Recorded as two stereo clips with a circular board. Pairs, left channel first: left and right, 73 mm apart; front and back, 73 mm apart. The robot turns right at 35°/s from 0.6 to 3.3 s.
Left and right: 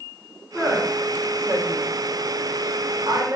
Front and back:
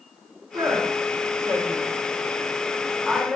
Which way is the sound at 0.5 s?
Straight behind.